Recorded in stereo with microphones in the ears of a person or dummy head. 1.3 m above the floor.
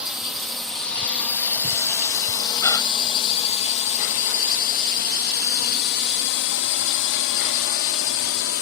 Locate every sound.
0.0 s a drone: 5° right (ahead or behind); by 8.6 s 70° left (ahead or behind)
2.6 s a gasp: 20° left (ahead or behind)